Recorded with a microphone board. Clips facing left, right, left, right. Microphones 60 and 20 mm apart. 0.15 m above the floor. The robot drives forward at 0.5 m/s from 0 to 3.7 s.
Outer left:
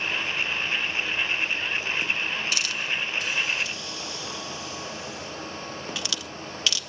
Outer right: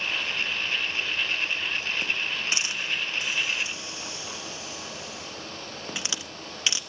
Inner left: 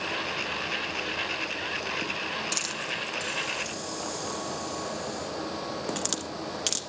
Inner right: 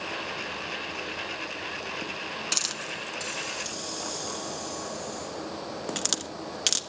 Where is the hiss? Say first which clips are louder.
Outer left 1 dB, inner right 1 dB; 25° right (ahead or behind), 1.4 m; by 6.8 s 20° right (ahead or behind), 1.7 m.